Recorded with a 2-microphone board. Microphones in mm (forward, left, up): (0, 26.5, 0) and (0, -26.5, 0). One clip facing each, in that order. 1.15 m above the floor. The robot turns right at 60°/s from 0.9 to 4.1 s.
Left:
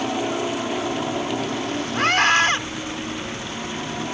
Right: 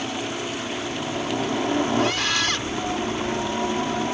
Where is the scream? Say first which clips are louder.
Left 5 dB; 115° left; by 2.6 s 155° left.